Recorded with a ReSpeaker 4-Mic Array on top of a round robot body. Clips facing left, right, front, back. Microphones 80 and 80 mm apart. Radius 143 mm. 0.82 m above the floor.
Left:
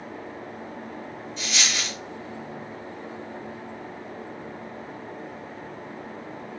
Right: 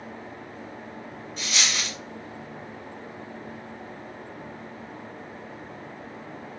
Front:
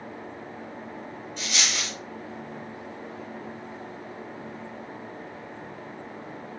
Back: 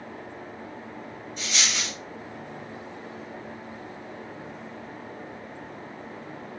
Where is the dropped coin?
45° right, 1.6 m.